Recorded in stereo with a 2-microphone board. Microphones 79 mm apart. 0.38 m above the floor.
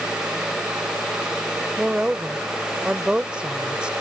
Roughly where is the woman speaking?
Centre.